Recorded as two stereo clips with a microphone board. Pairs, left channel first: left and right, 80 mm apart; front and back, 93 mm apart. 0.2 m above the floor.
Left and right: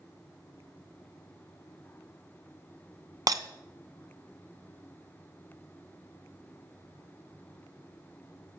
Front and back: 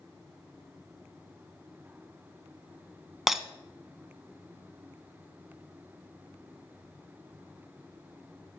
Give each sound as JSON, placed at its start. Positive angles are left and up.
{"t": 3.3, "sound": "breaking glass", "azimuth_deg": -95, "distance_m": 0.9}